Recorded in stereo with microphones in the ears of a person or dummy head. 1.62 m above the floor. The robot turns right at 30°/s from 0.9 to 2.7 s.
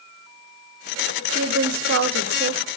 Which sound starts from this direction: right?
A woman speaking, at 1.3 s.